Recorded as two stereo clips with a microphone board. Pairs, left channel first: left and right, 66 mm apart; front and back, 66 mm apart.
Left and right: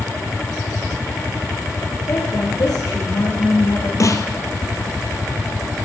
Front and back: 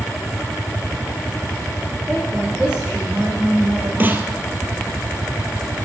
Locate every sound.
2.1 s a woman speaking: 105° left, 8.5 m
4.0 s a snare drum: 120° left, 1.5 m